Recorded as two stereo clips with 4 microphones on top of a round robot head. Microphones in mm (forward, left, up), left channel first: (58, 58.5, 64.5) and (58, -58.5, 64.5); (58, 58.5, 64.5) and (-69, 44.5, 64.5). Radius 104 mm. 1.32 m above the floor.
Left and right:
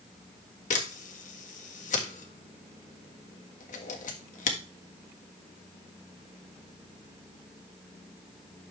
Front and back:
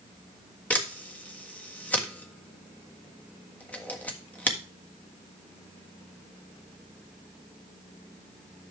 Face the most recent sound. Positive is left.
turn(degrees=85)